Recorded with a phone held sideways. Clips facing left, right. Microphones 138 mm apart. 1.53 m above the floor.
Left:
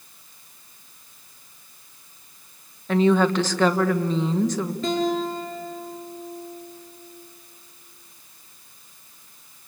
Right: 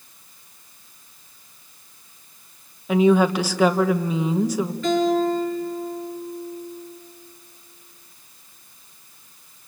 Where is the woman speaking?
10° right (ahead or behind), 1.5 m.